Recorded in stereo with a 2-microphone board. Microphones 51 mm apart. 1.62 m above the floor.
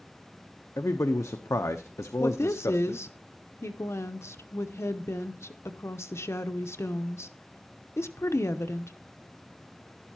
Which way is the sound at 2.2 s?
60° left (ahead or behind).